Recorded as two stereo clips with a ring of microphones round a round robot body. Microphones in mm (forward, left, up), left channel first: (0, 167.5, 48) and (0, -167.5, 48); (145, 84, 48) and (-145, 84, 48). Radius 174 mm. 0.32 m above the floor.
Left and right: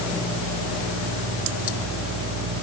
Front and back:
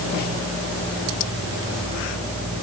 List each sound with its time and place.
Only background noise.